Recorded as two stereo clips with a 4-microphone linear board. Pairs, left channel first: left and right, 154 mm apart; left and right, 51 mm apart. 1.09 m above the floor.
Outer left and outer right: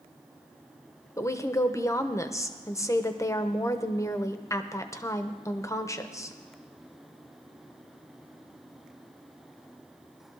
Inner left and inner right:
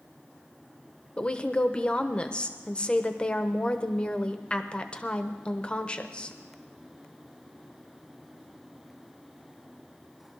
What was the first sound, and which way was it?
A woman speaking, 20° left (ahead or behind).